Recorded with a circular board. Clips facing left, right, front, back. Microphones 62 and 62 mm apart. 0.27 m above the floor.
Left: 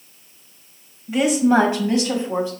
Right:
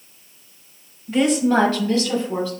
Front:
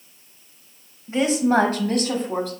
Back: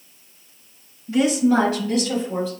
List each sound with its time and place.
1.1 s a woman speaking: 15° left, 1.0 m; by 2.5 s 25° left, 1.6 m